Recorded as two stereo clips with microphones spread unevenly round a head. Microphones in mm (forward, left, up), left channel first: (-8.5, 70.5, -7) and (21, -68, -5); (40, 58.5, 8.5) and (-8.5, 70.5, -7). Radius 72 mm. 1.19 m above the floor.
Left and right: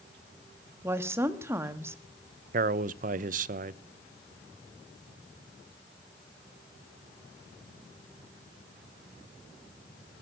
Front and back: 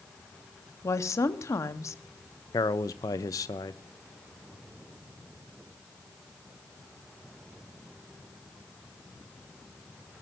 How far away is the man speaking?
About 0.7 m.